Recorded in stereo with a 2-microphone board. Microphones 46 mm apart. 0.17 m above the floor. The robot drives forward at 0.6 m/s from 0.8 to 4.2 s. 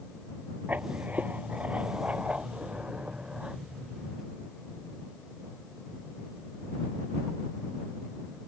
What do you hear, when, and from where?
0.7 s writing: 35° right (ahead or behind); by 3.6 s 20° right (ahead or behind)